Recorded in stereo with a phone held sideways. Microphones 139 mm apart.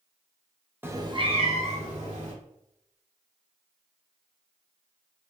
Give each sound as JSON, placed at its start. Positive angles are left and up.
{"t": 0.8, "sound": "a cat meowing", "side_deg": -15, "distance_m": 0.5}